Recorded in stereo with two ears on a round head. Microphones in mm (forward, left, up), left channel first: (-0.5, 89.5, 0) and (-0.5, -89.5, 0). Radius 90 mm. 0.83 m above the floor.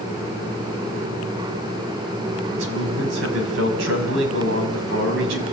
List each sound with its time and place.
2.5 s a man speaking: 70° right (ahead or behind), 6 m